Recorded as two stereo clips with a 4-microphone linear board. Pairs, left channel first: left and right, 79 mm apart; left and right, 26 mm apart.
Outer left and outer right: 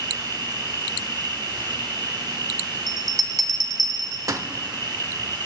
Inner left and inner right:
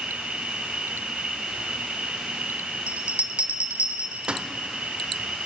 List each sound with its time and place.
0.0 s an insect: 70° right (ahead or behind), 1.1 m
2.9 s a bell: 45° right (ahead or behind), 0.7 m